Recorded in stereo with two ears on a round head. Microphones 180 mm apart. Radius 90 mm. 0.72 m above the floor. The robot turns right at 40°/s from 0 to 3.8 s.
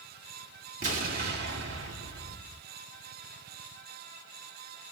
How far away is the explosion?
About 1.7 m.